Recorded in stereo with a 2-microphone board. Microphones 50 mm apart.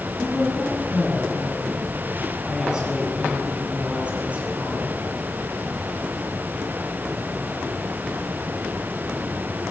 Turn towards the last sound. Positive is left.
turn(degrees=-30)  # may be behind; listen again after turning